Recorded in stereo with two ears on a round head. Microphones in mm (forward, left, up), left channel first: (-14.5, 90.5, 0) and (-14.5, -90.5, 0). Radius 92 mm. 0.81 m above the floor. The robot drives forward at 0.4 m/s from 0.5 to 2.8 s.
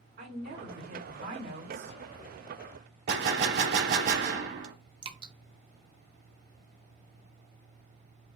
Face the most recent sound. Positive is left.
turn(degrees=-25)  # may be behind; listen again after turning